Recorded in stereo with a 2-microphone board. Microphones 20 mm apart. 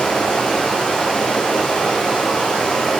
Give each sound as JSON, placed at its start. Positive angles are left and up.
{"t": 0.0, "sound": "running water", "side_deg": 60, "distance_m": 4.5}